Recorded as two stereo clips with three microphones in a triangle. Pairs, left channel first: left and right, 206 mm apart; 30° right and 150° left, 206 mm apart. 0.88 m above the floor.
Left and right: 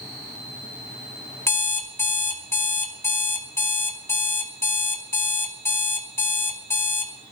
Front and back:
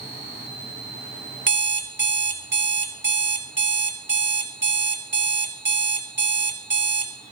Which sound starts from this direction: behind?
An alarm clock, at 1.5 s.